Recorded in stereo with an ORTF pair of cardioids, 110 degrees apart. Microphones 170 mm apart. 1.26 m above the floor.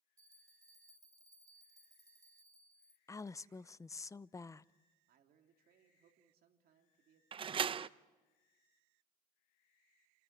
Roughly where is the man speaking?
Ahead right.